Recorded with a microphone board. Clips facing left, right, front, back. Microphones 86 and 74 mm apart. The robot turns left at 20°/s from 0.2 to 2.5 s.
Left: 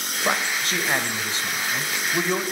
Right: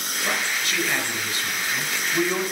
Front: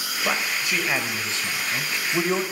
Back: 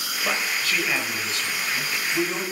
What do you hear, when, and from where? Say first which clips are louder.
0.2 s a man speaking: left 3 dB, front 1 dB; 70° left, 1.3 m; by 2.4 s 25° left, 1.3 m